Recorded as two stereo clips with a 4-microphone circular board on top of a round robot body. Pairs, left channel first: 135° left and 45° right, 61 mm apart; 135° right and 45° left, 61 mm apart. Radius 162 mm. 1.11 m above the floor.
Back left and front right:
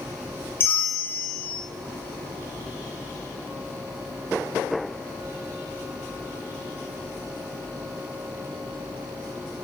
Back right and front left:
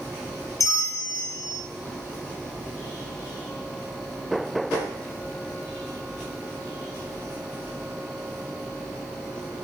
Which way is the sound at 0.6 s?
170° right.